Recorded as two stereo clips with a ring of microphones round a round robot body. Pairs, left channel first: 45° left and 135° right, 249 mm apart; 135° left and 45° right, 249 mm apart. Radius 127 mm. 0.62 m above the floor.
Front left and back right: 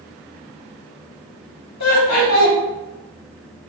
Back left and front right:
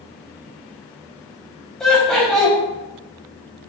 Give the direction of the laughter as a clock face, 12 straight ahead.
10 o'clock.